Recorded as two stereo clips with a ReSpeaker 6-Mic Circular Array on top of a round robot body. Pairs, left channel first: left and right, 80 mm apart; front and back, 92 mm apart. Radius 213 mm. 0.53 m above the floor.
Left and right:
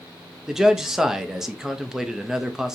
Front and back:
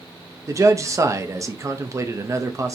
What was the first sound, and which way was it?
A man speaking, 170° right.